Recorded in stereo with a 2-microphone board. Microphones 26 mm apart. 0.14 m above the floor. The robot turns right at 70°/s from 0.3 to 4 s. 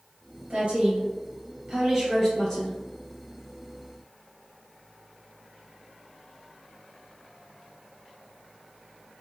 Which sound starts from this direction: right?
A woman speaking, at 0.5 s.